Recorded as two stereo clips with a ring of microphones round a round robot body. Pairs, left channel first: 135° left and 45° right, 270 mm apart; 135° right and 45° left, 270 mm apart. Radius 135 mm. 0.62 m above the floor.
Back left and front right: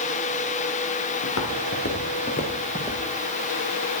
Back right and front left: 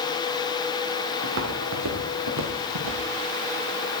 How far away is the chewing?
I don't hear chewing.